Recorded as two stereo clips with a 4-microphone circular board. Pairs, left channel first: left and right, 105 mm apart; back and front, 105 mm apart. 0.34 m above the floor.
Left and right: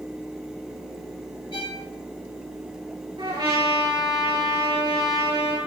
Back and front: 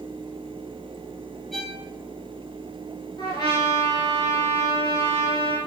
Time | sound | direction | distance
1.5 | a violin | 95° left | 2 m
3.2 | a trumpet | 130° right | 3.5 m